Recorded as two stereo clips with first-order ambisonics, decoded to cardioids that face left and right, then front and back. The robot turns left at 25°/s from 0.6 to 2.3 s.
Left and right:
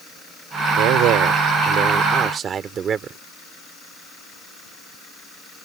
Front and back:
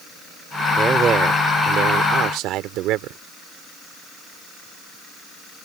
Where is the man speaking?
110° right; by 3.2 s 150° right.